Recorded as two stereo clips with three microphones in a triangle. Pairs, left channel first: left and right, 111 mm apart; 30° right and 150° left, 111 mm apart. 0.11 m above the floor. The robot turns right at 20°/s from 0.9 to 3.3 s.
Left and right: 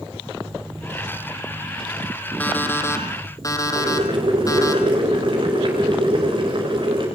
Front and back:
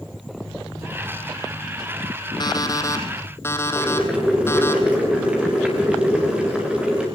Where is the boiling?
130° right, 8.5 m.